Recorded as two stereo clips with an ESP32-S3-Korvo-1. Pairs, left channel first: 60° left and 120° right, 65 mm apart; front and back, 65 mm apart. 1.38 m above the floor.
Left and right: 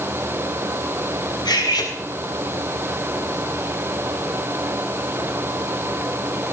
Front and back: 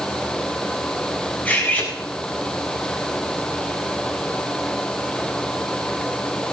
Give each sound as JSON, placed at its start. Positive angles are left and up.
{"t": 1.4, "sound": "cutlery clinking", "azimuth_deg": 65, "distance_m": 5.0}